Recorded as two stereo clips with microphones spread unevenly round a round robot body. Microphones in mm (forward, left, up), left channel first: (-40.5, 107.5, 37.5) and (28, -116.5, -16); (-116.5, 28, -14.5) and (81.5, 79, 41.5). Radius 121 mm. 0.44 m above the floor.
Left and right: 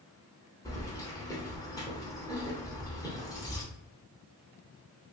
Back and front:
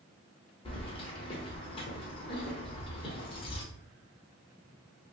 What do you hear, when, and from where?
0.7 s keys jangling: 170° right, 0.8 m